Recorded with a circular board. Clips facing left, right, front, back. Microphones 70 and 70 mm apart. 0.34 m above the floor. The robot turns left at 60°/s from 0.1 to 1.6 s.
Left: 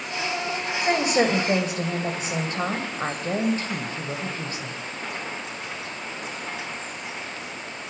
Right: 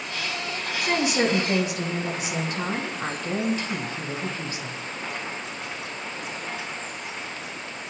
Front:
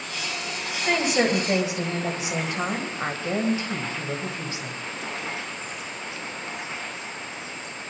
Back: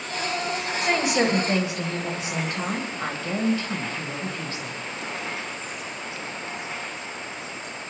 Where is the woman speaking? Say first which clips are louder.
Left 2 dB, even; 110° left, 1.9 m; by 4.8 s 65° left, 1.9 m.